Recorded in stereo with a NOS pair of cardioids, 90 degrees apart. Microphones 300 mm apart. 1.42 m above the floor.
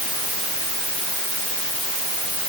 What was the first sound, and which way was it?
Only background noise.